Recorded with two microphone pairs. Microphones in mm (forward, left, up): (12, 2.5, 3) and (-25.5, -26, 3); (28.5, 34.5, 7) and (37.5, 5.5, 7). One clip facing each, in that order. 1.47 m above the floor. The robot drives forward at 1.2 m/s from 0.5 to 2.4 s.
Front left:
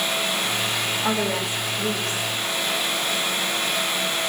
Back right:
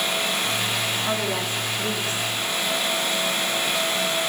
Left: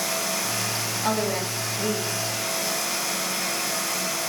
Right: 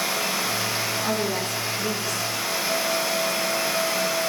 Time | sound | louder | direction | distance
1.0 | a woman speaking | front left 2 dB, even | 50° left | 9 m